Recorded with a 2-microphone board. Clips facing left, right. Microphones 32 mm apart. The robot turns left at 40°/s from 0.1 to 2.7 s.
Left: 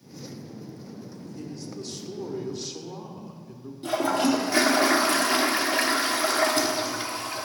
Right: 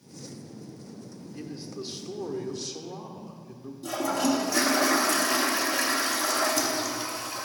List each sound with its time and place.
1.3 s a man speaking: 140° right, 1.2 m; by 3.7 s 170° left, 1.2 m
3.8 s a toilet flushing: 40° left (ahead or behind), 0.9 m